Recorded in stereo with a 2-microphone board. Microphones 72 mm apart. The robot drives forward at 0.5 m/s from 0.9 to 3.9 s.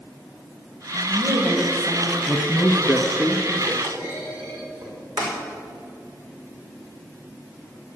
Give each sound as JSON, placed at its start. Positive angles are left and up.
{"t": 0.9, "sound": "a woman speaking", "side_deg": -50, "distance_m": 5.0}
{"t": 2.3, "sound": "a man speaking", "side_deg": -5, "distance_m": 1.1}
{"t": 3.8, "sound": "a clunk", "side_deg": -65, "distance_m": 5.0}